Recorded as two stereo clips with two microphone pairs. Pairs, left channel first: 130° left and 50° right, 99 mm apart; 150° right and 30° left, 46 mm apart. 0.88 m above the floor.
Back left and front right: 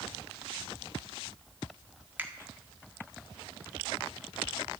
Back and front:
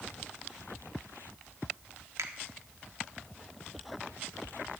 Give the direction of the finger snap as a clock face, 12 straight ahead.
11 o'clock.